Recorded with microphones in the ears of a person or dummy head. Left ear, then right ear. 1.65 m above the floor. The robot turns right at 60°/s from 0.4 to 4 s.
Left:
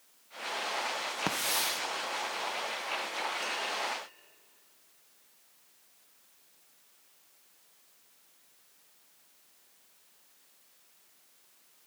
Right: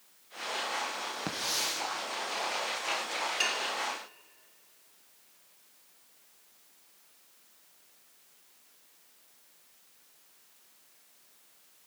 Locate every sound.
1.3 s a hiss: 145° left, 0.9 m; by 1.8 s straight behind, 0.9 m
3.4 s dishes clattering: 65° right (ahead or behind), 3 m; by 3.7 s 50° right (ahead or behind), 3 m